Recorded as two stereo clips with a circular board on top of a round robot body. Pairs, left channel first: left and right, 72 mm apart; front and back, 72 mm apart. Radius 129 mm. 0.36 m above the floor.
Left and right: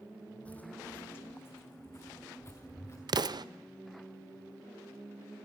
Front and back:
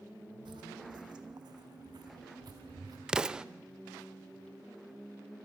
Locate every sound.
0.5 s footsteps: 165° left, 1.0 m; by 3.0 s 145° left, 3 m
3.1 s an explosion: 100° right, 0.6 m